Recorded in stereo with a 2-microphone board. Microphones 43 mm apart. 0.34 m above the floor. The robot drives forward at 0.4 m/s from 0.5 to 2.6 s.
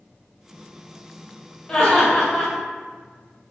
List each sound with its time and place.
1.7 s laughter: 20° left (ahead or behind), 1.5 m; by 2.5 s 15° left (ahead or behind), 1.6 m